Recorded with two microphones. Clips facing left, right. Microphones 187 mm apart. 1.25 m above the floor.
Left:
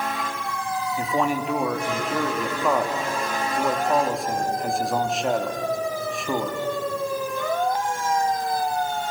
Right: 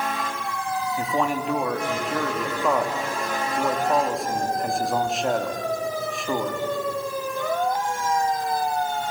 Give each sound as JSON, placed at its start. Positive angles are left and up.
{"t": 1.0, "sound": "a man speaking", "side_deg": 5, "distance_m": 2.0}